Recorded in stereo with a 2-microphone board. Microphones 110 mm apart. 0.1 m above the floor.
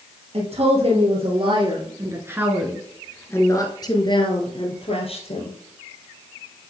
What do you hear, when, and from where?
0.3 s a woman speaking: 60° right (ahead or behind), 2.5 m; by 5.5 s 60° left (ahead or behind), 2.5 m